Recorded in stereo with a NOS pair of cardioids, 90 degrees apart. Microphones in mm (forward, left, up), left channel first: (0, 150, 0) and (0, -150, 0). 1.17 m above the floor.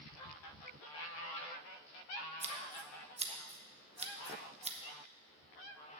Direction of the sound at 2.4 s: 20° right.